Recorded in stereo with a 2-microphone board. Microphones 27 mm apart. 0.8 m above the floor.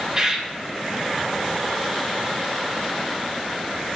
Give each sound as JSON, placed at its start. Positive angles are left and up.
{"t": 0.1, "sound": "a bird", "side_deg": -25, "distance_m": 1.6}